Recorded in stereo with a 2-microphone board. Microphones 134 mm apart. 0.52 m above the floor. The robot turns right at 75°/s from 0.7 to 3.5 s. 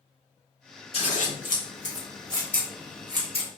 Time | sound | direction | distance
0.9 | scissors | 45° left (ahead or behind) | 1.0 m